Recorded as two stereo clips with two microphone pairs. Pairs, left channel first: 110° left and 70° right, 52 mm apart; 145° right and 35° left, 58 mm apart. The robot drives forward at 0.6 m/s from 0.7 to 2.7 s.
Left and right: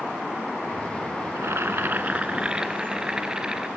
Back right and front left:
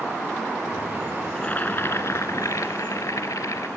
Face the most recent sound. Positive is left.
turn(degrees=-145)